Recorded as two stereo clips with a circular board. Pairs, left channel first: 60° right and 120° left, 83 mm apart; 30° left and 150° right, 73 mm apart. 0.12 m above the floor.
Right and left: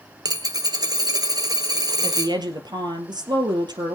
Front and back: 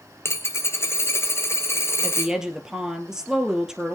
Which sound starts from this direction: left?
A dropped coin, at 0.2 s.